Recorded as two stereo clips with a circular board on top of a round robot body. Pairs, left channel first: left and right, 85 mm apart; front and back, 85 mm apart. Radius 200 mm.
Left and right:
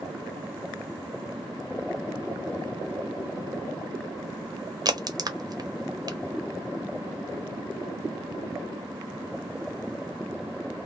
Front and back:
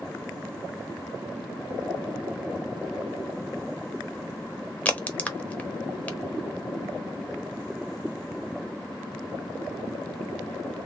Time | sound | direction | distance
4.8 | a crack | 70° right | 1.2 m